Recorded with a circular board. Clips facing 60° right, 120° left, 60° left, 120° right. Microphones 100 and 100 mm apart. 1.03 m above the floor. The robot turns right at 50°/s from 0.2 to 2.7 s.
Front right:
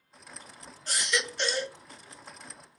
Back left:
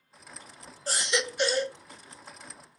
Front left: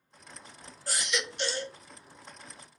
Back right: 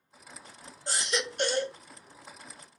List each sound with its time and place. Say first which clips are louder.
0.9 s a baby crying: back left 2 dB, back right 2 dB; 175° left, 0.7 m; by 1.8 s 140° right, 0.7 m